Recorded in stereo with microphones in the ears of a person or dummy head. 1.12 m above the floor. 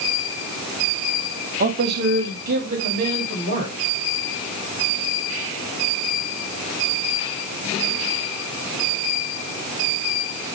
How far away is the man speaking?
About 0.7 m.